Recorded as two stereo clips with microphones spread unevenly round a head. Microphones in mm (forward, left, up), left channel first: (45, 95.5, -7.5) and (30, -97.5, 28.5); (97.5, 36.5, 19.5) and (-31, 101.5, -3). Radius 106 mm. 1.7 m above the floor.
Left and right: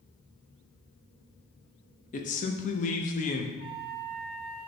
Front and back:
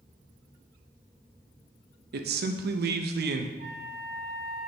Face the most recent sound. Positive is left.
turn(degrees=-165)